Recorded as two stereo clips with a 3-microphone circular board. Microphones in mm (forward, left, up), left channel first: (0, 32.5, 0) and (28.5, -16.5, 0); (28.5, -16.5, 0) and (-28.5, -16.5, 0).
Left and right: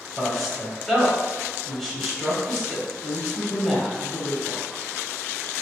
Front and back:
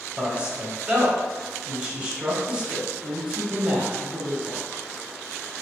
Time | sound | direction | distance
0.2 | a man speaking | 165° right | 0.9 m